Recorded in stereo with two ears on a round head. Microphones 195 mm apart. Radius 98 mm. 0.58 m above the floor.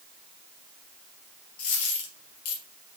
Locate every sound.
1.6 s a dropped coin: 75° left (ahead or behind), 3 m